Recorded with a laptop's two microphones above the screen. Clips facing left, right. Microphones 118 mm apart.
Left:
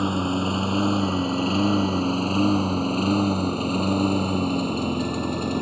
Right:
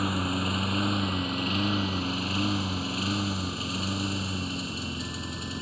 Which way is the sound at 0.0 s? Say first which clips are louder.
Left 6 dB; 25° left (ahead or behind).